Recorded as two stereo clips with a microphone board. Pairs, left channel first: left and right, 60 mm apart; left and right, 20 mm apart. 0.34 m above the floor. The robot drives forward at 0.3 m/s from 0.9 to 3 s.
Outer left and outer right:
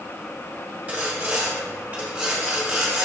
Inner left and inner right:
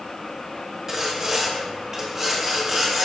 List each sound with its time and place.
0.9 s sawing: 25° right (ahead or behind), 0.8 m; by 3.1 s 20° right (ahead or behind), 1.2 m